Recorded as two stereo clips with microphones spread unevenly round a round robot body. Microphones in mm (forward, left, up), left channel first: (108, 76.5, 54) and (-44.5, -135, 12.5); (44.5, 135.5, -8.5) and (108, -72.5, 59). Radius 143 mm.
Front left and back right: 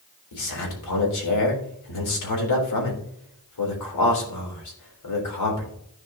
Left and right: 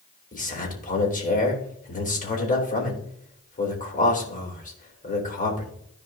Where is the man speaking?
65° left, 3.5 m.